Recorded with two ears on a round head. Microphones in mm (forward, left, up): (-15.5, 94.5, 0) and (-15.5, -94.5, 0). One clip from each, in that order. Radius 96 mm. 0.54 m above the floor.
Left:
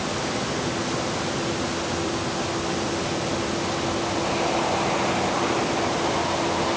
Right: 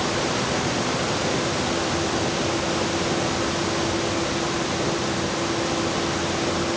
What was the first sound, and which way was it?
Only background noise.